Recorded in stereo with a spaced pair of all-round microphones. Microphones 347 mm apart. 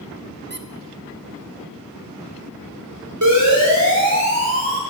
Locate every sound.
0.5 s a squeak: 30° right (ahead or behind), 0.8 m
3.2 s a siren: 60° right (ahead or behind), 5 m; by 4.8 s 40° right (ahead or behind), 4 m